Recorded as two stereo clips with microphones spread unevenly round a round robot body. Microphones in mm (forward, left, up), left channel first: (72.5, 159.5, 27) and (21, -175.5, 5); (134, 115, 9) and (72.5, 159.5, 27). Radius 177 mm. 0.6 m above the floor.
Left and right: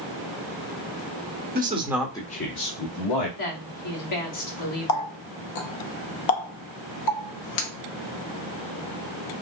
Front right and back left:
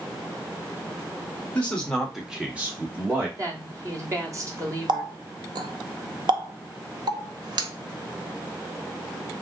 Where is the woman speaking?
95° left, 1.4 m.